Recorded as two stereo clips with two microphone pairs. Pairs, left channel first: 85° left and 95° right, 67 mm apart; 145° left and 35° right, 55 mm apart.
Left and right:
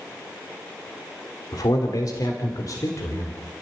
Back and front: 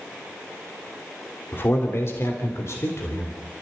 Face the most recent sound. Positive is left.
turn(degrees=125)